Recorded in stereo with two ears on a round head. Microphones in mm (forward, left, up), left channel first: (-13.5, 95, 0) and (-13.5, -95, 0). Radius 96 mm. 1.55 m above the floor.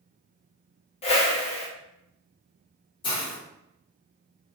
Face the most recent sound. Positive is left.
turn(degrees=25)  # may be behind; listen again after turning